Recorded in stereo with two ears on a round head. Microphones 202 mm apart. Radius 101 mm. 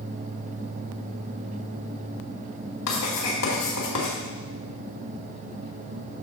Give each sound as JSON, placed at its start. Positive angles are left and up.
{"t": 2.9, "sound": "writing", "side_deg": 75, "distance_m": 4.0}